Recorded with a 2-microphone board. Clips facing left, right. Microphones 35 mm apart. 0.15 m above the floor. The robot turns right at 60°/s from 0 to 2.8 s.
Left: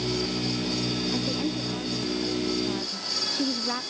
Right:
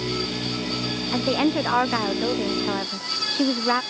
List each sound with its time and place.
1.1 s a woman speaking: 140° right; by 3.8 s 40° right